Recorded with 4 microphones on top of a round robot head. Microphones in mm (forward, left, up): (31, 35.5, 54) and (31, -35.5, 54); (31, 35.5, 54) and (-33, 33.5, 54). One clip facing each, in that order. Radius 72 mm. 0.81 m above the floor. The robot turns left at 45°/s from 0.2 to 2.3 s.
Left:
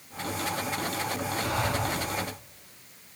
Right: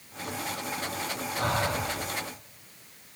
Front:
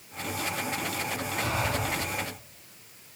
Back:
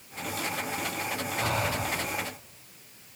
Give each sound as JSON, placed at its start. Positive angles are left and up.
{"t": 1.3, "sound": "breathing", "azimuth_deg": -135, "distance_m": 9.0}